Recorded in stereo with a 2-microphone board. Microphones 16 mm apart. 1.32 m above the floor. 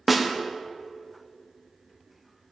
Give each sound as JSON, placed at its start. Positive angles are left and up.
{"t": 0.1, "sound": "a snare drum", "side_deg": -5, "distance_m": 0.7}